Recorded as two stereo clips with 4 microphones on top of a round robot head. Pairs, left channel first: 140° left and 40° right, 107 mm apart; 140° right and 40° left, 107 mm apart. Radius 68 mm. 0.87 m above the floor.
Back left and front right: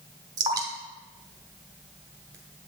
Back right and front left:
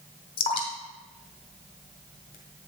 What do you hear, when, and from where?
0.4 s dripping: 100° right, 1.1 m